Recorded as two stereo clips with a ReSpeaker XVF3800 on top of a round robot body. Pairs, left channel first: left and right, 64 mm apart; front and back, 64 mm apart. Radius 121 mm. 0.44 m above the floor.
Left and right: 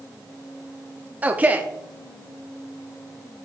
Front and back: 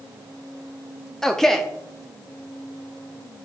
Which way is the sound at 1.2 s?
75° right.